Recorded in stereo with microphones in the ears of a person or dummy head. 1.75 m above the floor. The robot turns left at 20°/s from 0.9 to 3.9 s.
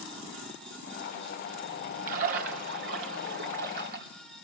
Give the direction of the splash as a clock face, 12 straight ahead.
3 o'clock.